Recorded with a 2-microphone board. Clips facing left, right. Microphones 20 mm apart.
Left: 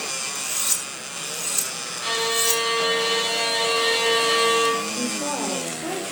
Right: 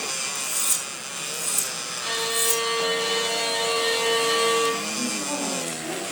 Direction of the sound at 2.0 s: 20° left (ahead or behind).